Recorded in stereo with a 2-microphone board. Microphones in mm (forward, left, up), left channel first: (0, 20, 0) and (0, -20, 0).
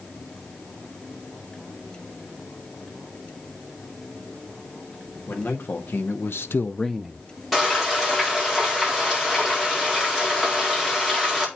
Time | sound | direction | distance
5.3 | a man speaking | 65° left (ahead or behind) | 2 m
7.5 | frying | 5° left (ahead or behind) | 4.5 m